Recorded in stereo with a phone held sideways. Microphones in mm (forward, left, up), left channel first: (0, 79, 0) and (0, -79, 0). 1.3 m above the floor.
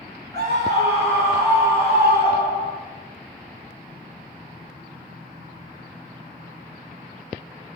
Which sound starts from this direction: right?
A scream, at 0.3 s.